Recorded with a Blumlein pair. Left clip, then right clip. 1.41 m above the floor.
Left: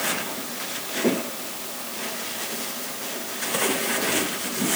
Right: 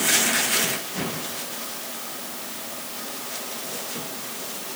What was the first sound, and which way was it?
Only background noise.